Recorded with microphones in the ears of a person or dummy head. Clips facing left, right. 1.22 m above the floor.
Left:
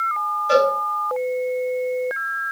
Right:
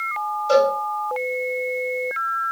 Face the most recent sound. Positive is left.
turn(degrees=5)  # may be behind; listen again after turning